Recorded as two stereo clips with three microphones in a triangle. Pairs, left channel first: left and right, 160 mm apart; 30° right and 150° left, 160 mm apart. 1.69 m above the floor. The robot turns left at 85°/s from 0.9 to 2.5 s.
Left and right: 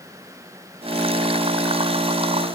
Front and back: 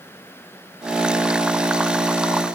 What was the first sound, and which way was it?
Only background noise.